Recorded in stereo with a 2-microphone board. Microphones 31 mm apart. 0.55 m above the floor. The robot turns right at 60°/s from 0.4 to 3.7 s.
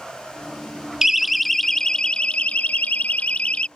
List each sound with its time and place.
1.0 s a siren: 15° right (ahead or behind); by 3.7 s 35° left (ahead or behind)